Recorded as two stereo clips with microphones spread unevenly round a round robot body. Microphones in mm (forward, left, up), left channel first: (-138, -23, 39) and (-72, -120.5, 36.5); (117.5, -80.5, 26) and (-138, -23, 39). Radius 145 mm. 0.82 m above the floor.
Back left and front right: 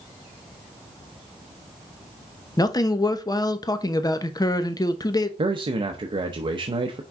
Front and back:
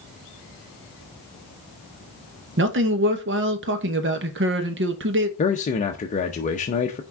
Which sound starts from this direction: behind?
A man speaking, at 2.6 s.